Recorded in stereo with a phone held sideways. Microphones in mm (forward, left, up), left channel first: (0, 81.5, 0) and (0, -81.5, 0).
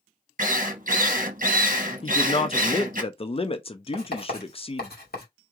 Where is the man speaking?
35° left (ahead or behind), 0.6 m.